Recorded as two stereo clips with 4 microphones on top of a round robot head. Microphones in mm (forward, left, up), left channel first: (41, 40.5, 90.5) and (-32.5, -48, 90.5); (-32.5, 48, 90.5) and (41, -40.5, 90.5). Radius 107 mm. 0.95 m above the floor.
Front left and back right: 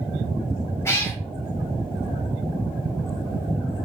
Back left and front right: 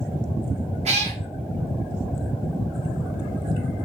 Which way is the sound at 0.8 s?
20° right.